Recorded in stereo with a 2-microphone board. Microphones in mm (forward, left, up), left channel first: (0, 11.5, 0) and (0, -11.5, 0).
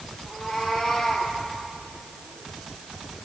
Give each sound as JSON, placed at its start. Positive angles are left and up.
{"t": 0.3, "sound": "a cat meowing", "side_deg": 50, "distance_m": 5.5}